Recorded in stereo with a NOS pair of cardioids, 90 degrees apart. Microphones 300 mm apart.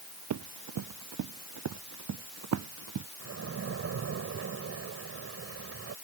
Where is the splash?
45° right.